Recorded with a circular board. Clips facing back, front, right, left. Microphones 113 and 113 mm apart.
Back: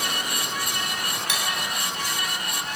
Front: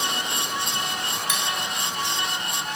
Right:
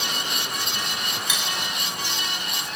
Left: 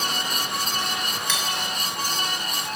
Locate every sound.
1.3 s cutlery clinking: 165° right, 1.0 m